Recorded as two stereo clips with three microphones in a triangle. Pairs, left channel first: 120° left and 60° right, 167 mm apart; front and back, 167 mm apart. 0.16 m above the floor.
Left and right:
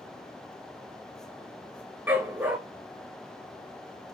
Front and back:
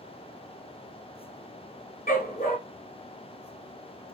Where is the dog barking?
20° left, 1.1 m.